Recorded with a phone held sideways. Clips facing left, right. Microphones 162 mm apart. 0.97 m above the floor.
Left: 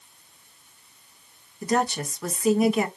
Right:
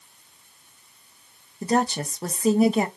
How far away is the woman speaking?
About 0.6 m.